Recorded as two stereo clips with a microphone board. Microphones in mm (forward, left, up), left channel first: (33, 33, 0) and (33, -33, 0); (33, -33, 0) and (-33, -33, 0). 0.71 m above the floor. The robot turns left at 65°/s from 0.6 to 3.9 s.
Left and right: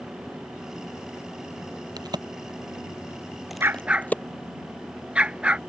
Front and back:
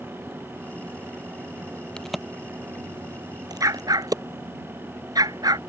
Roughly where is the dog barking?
Behind right.